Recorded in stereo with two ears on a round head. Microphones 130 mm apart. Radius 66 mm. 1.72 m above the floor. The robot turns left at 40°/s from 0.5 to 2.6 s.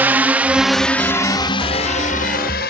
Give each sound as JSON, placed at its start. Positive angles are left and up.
{"t": 0.0, "sound": "a drone", "side_deg": -15}